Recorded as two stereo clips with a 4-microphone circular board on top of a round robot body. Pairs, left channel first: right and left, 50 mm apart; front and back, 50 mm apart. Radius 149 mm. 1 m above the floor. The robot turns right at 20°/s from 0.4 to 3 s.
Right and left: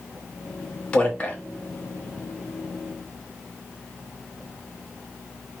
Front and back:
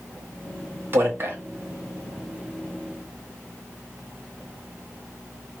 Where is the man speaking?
155° right, 1.3 m; by 1.4 s 145° right, 1.3 m.